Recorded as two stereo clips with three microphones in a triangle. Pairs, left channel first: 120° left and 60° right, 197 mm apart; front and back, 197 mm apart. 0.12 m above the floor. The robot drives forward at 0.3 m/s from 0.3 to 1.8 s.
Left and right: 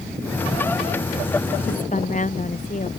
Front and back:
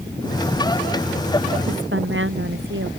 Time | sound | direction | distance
1.7 | a woman speaking | 170° left | ?